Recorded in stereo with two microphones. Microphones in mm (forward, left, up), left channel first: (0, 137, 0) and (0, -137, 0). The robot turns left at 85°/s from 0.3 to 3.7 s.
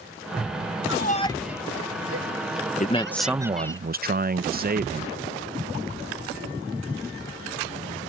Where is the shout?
50° left (ahead or behind); by 3.8 s 10° left (ahead or behind).